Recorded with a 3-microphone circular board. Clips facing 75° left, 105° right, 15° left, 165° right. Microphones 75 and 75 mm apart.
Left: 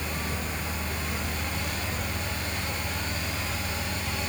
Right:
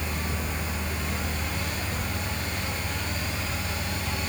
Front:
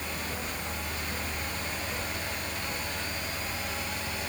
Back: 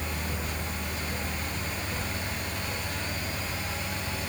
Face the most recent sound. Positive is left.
No sound to turn to.